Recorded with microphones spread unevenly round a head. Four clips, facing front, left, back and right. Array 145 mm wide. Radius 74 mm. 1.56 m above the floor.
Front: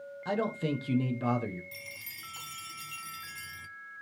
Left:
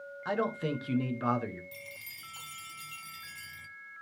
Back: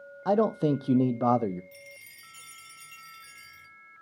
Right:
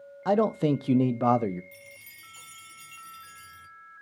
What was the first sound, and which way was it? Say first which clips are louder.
A man speaking: right 8 dB, back 8 dB; 135° right.